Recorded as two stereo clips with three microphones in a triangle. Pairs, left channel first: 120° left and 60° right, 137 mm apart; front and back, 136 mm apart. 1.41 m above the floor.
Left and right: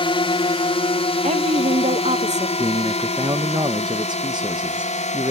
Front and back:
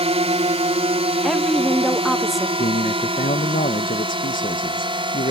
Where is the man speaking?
5° right.